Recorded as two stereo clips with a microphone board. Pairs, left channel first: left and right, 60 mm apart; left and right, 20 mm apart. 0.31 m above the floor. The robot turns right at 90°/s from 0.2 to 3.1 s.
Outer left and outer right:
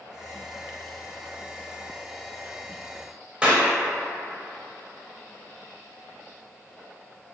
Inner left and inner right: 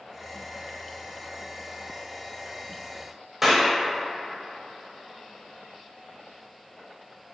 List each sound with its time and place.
3.4 s a clap: 15° right (ahead or behind), 0.8 m